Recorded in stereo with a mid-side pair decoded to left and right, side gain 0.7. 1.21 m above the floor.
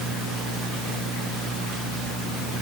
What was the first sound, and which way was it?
Only background noise.